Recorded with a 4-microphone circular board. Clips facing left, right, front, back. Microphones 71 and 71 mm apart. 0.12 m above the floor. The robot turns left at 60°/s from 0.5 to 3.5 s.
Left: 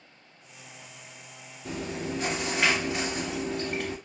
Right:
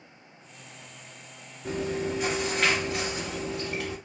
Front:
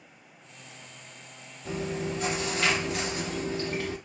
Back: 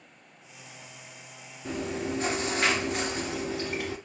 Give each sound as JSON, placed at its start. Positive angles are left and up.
{"t": 1.6, "sound": "chewing", "azimuth_deg": -135, "distance_m": 2.0}